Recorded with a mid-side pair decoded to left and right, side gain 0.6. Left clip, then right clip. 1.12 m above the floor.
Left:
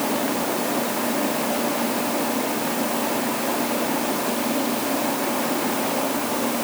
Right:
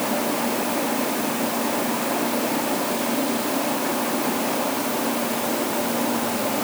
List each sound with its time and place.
Only background noise.